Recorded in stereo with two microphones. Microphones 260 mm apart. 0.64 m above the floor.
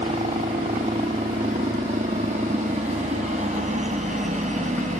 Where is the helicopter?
25° right (ahead or behind); by 5.0 s 30° right (ahead or behind).